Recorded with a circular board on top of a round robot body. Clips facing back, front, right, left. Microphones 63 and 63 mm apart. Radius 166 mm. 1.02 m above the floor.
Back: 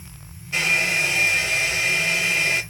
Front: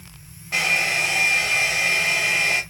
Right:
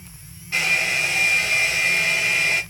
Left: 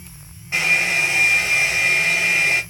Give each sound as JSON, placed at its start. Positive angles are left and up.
{"t": 0.5, "sound": "a hair dryer", "azimuth_deg": 25, "distance_m": 0.8}